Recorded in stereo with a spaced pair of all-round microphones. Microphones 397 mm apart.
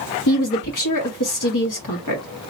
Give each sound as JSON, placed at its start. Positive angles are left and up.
{"t": 0.3, "sound": "a woman speaking", "side_deg": 50, "distance_m": 1.1}